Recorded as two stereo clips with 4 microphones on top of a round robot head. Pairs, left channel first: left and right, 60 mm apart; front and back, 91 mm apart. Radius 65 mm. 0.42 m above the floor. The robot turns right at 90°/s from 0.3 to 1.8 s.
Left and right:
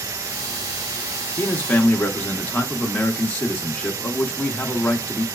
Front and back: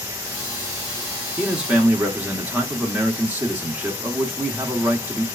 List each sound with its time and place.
1.4 s a man speaking: 90° left, 0.8 m; by 5.2 s 130° left, 0.8 m